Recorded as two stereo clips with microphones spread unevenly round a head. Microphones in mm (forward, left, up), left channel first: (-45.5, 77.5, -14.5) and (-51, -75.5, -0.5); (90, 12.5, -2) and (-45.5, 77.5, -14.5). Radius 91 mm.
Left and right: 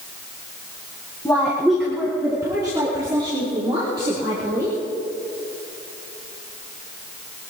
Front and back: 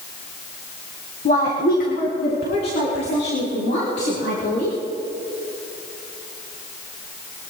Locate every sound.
1.2 s a woman speaking: 10° left, 1.8 m; by 4.8 s 30° right, 6.5 m